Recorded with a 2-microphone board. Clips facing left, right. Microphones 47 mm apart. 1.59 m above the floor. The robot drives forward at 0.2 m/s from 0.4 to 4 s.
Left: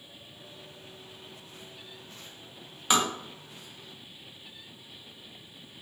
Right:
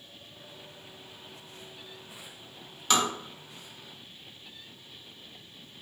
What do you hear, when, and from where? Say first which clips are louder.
2.9 s tapping: even; 15° left (ahead or behind), 0.9 m